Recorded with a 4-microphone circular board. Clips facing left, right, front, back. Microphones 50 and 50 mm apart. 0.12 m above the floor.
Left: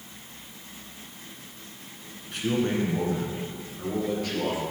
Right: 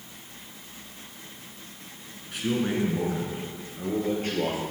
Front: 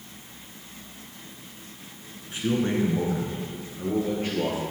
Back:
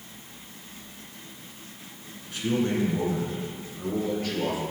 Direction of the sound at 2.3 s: Straight ahead.